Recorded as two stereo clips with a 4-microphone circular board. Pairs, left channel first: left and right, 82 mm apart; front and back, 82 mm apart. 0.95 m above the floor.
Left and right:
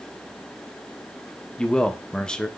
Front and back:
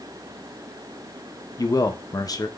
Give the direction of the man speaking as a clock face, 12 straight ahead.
12 o'clock.